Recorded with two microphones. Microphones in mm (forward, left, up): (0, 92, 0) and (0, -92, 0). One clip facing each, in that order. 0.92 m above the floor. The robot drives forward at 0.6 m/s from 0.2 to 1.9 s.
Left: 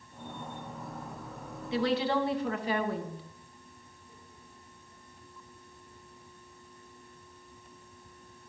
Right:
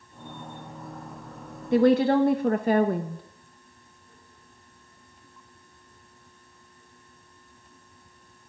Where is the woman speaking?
50° right (ahead or behind), 0.9 m.